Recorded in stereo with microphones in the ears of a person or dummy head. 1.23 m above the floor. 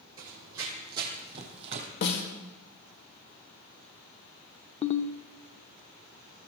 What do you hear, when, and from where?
0.2 s running footsteps: 20° right (ahead or behind), 2.5 m; by 1.9 s 35° right (ahead or behind), 2 m
2.0 s a snare drum: 60° left (ahead or behind), 2 m
4.8 s a ringtone: 30° left (ahead or behind), 0.5 m